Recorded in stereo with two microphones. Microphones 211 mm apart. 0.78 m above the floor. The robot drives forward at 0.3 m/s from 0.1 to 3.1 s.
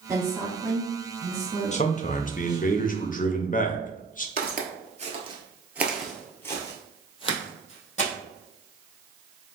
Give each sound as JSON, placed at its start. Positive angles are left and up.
{"t": 0.1, "sound": "a woman speaking", "side_deg": -15, "distance_m": 2.0}
{"t": 1.7, "sound": "a man speaking", "side_deg": 35, "distance_m": 0.6}
{"t": 4.4, "sound": "footsteps", "side_deg": -50, "distance_m": 1.1}